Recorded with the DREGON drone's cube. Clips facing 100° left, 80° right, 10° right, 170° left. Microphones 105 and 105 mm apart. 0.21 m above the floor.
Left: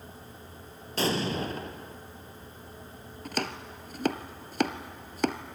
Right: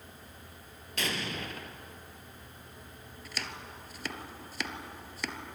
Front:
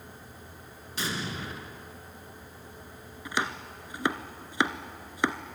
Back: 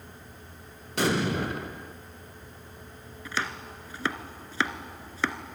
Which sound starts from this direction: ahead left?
Chopping, at 3.2 s.